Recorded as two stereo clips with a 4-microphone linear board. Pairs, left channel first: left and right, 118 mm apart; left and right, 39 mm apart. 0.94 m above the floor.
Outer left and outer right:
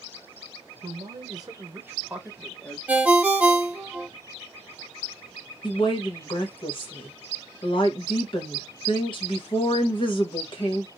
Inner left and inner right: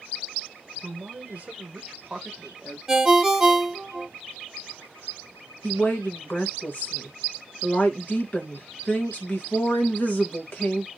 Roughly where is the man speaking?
Right.